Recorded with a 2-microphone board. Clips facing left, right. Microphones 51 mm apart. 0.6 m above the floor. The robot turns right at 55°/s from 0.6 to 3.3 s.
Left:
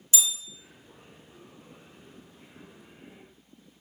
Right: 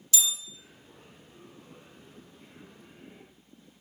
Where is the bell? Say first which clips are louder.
Even; 25° left (ahead or behind), 0.9 m.